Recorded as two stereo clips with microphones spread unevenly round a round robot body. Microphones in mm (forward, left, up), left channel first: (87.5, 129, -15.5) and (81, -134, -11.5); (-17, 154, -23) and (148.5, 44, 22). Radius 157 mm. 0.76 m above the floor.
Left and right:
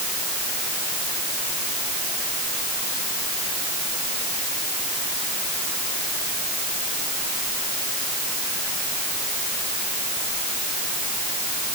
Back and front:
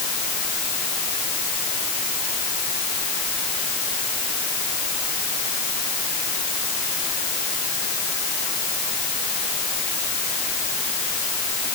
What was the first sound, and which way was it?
Only background noise.